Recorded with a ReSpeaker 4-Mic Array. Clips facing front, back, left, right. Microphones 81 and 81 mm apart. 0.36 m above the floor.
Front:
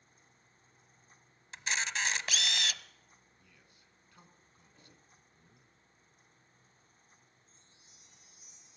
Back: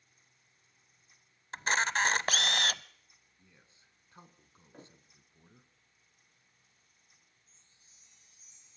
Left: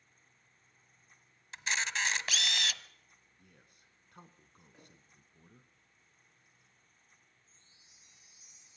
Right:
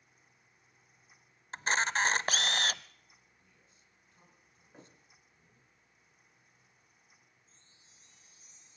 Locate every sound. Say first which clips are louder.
1.5 s a camera shutter: back 6 dB, right 5 dB; 140° right, 0.8 m
3.4 s a man speaking: front 1 dB, left 3 dB; 115° left, 3 m
4.7 s a thud: back 10 dB, right 6 dB; 150° right, 5.5 m
7.5 s a chime: front 5 dB, right 1 dB; 20° left, 9.5 m